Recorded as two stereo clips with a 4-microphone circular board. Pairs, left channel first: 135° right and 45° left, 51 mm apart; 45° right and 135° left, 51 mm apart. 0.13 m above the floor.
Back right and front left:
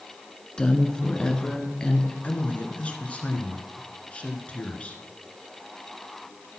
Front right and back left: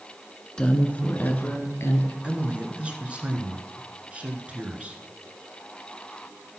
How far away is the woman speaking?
About 1.1 m.